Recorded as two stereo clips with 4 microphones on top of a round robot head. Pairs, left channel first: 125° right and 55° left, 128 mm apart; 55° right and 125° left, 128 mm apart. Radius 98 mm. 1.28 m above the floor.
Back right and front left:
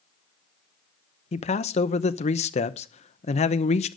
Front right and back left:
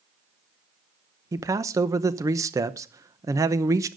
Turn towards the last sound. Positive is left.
turn(degrees=-165)